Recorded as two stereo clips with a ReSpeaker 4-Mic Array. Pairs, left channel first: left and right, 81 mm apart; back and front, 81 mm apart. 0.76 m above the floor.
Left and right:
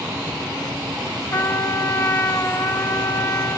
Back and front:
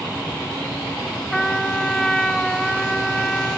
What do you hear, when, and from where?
1.3 s a trumpet: 100° left, 1.2 m